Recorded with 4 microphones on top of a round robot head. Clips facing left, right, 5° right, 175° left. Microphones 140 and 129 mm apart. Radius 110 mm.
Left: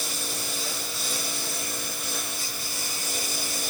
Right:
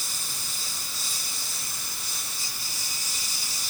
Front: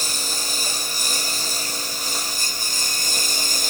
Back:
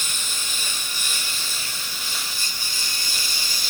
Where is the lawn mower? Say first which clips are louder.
Left 8 dB, front 5 dB; 45° left; by 3.7 s 40° left.